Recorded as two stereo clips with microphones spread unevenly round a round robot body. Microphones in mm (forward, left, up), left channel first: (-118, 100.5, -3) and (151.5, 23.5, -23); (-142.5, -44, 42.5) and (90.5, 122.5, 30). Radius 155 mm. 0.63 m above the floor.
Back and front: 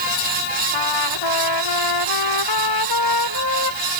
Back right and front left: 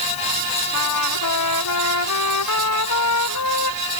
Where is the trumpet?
175° right.